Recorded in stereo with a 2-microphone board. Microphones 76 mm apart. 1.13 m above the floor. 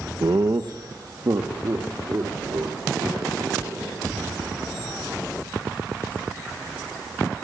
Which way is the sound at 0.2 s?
60° right (ahead or behind).